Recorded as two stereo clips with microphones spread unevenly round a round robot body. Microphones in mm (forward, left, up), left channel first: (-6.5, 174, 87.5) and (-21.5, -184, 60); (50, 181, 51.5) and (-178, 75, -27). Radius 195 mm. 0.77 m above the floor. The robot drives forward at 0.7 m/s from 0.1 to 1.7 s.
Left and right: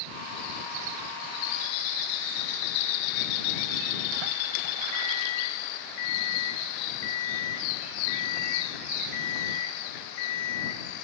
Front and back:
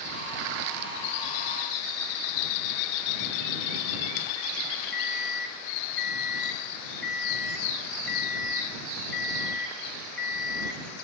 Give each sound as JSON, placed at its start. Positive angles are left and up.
{"t": 4.9, "sound": "an alarm clock", "azimuth_deg": 110, "distance_m": 3.0}